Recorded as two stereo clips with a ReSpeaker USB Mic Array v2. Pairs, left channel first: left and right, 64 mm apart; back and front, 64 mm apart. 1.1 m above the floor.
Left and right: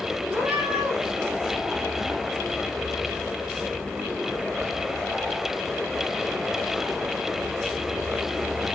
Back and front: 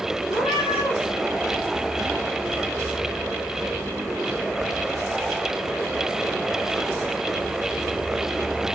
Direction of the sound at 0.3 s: 145° right.